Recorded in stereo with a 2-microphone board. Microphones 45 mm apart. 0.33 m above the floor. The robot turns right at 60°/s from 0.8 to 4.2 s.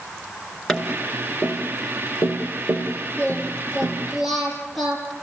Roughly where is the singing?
Behind left.